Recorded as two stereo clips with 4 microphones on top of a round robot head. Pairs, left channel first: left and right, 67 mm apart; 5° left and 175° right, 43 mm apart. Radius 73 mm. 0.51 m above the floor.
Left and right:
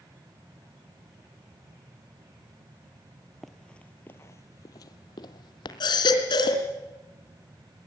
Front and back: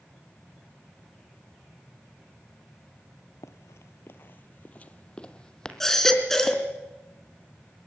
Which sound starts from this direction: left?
A baby crying, at 5.8 s.